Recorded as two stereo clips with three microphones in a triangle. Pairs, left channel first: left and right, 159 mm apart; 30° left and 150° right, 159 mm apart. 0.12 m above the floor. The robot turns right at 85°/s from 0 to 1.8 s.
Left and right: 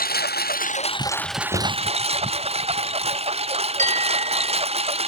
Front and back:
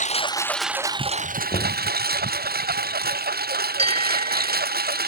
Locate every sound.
0.0 s a lawn mower: 65° left; by 5.1 s 140° right
1.5 s knocking: 50° left; by 1.8 s 75° left
3.8 s a bell: 110° right